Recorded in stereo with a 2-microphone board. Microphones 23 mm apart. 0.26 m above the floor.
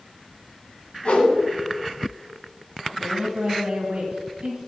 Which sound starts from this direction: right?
A woman speaking, at 2.9 s.